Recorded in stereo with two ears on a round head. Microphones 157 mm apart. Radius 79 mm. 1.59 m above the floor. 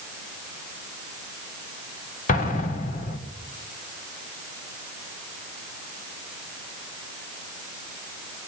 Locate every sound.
2.3 s an explosion: 50° left (ahead or behind), 2.5 m